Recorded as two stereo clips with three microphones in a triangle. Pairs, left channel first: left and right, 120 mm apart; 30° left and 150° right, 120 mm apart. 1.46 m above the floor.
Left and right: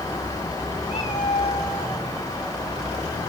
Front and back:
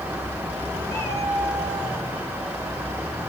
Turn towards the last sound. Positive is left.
turn(degrees=105)